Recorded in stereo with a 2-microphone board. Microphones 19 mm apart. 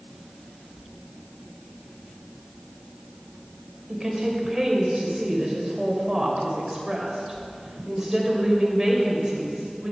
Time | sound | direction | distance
3.9 | a woman speaking | 20° right (ahead or behind) | 2.5 m